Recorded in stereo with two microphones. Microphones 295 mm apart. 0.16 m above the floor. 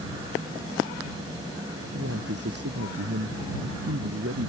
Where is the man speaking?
60° right (ahead or behind).